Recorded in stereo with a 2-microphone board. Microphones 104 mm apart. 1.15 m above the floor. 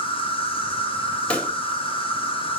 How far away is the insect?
About 1.2 m.